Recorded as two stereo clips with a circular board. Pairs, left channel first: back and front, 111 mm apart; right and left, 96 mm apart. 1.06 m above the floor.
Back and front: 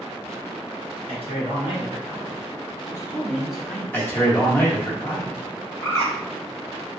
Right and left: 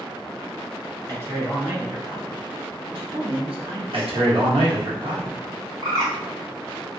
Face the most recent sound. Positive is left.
turn(degrees=120)